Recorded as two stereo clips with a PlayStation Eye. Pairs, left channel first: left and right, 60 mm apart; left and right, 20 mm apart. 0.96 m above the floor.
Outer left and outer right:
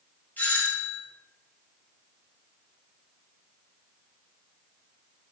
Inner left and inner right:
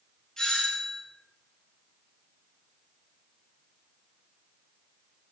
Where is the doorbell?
30° left (ahead or behind), 4 m.